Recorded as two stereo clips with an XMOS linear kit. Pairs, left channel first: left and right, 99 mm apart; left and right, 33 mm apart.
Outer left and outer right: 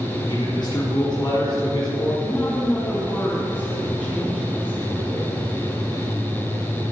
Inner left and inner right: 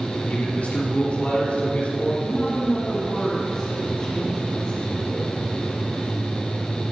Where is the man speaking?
40° left (ahead or behind), 3.5 m.